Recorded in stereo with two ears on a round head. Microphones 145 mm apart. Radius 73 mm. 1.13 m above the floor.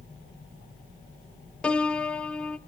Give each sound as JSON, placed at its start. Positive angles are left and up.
{"t": 1.6, "sound": "a piano", "side_deg": 5, "distance_m": 0.5}